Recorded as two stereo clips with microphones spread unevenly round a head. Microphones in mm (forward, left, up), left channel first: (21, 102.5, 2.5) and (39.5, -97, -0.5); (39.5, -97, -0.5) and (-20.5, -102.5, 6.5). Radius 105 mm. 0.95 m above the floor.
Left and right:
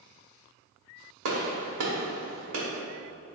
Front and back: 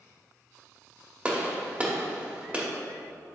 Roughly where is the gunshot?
Right.